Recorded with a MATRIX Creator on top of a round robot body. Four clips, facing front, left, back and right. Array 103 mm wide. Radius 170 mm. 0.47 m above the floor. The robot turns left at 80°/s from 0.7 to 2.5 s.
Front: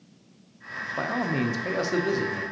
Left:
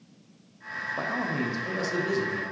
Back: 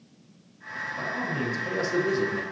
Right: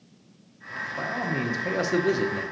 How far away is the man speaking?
About 0.9 m.